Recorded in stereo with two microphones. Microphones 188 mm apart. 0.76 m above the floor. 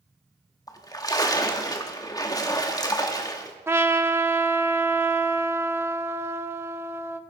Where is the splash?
20° left (ahead or behind), 1.2 m.